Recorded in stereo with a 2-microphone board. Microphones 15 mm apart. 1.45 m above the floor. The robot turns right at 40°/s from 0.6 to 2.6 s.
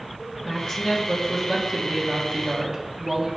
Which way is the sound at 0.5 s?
135° left.